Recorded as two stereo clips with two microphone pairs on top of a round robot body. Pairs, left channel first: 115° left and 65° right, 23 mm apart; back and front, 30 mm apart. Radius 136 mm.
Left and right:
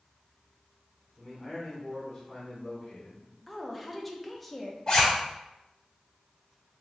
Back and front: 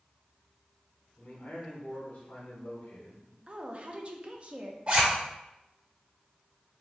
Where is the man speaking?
140° right, 1.4 m.